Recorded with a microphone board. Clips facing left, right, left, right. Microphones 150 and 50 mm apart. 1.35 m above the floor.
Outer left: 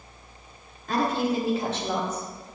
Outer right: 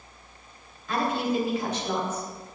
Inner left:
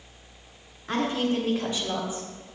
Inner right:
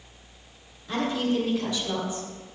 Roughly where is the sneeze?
No sneeze in this recording.